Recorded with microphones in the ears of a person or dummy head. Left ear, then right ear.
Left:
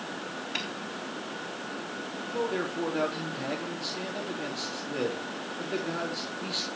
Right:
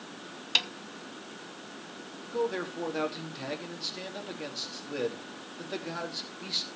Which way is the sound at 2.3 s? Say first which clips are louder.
Even; 20° right (ahead or behind).